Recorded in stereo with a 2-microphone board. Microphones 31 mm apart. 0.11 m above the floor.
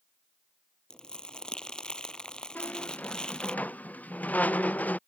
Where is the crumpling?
25° left (ahead or behind).